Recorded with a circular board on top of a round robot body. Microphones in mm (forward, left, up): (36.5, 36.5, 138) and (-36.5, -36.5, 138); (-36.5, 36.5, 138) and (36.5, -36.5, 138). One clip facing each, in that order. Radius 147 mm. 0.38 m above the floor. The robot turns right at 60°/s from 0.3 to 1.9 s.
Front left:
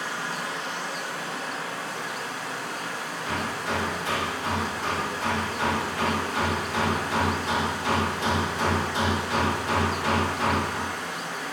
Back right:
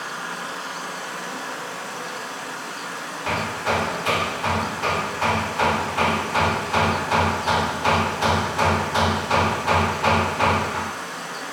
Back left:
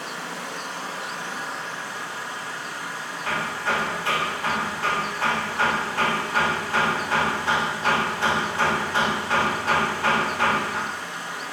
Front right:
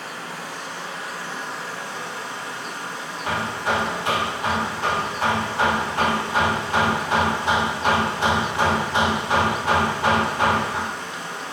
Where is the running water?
150° left, 4.5 m; by 11.5 s 110° right, 4.5 m.